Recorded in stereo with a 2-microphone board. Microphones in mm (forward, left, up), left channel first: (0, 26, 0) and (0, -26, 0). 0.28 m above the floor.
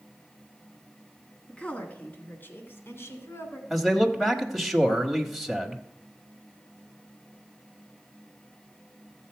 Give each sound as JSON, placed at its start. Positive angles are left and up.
{"t": 1.5, "sound": "a woman speaking", "side_deg": 20, "distance_m": 2.0}
{"t": 3.7, "sound": "a man speaking", "side_deg": -5, "distance_m": 1.2}